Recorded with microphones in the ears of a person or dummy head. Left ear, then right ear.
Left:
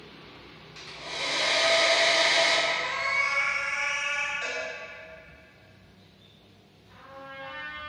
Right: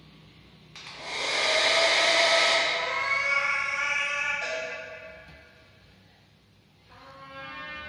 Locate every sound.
0.8 s a hair dryer: 45° right (ahead or behind), 0.7 m
2.7 s a cat meowing: 25° left (ahead or behind), 0.9 m
4.4 s a cowbell: centre (ahead or behind), 1.2 m
6.9 s a trumpet: 15° right (ahead or behind), 0.8 m